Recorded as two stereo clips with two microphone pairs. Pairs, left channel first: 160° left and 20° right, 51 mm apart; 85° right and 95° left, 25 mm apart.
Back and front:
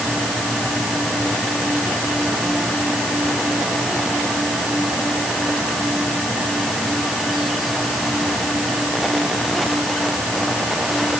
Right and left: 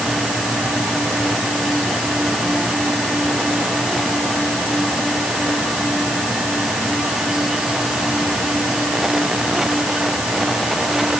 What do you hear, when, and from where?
Only background noise.